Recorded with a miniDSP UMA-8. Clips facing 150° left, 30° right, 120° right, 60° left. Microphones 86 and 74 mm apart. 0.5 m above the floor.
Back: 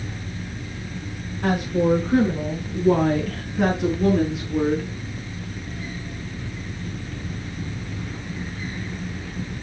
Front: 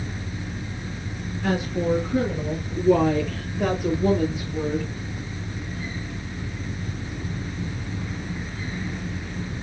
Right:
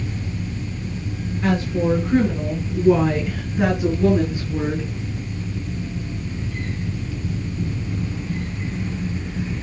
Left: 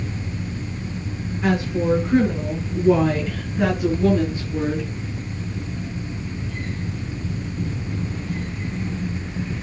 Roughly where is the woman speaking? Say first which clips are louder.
Back 4 dB, even; behind left.